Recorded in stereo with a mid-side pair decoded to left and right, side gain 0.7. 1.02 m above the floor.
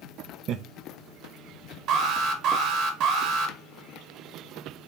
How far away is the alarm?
About 1.0 m.